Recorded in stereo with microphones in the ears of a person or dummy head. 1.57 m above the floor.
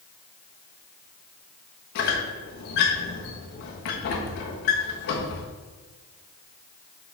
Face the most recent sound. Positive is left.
turn(degrees=45)  # may be behind; listen again after turning